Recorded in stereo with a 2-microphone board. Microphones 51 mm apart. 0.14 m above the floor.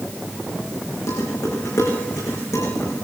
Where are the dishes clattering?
85° left, 7.5 m.